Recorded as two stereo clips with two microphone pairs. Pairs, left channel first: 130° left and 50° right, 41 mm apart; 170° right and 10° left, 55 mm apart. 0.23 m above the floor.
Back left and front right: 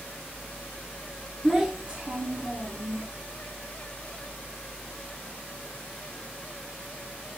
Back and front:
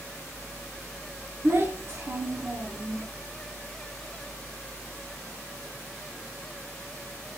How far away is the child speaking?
About 1.0 m.